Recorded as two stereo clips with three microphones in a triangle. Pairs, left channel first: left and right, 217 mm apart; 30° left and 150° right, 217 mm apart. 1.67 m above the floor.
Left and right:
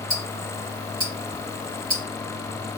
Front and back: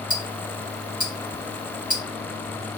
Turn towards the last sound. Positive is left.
turn(degrees=-95)